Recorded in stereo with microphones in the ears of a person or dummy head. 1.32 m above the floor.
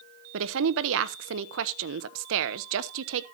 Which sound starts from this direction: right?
A woman speaking, at 0.3 s.